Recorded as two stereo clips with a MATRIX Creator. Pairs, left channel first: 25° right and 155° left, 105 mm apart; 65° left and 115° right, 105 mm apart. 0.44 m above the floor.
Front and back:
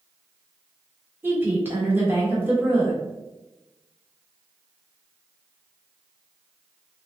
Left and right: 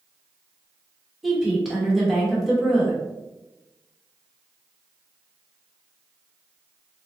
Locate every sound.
1.2 s a woman speaking: 165° left, 1.0 m